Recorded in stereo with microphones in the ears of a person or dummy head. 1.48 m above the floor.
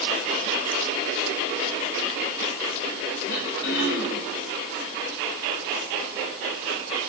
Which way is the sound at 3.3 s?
70° left (ahead or behind).